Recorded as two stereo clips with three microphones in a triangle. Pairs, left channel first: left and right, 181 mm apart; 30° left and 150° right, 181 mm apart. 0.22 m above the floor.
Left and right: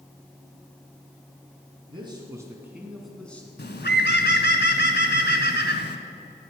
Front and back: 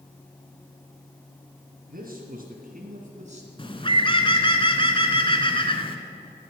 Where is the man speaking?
145° right, 2.5 m; by 3.5 s 170° left, 2.5 m.